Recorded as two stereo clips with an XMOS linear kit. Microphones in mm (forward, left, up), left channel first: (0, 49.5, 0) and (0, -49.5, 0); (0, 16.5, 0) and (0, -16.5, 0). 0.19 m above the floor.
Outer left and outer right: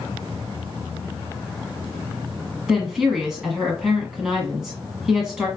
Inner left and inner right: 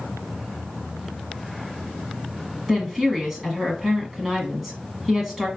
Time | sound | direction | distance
2.7 | a woman speaking | 10° right (ahead or behind) | 1.2 m